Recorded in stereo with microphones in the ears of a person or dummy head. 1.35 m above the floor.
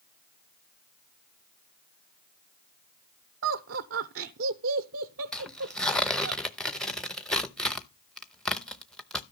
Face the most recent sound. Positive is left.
turn(degrees=5)  # may be behind; listen again after turning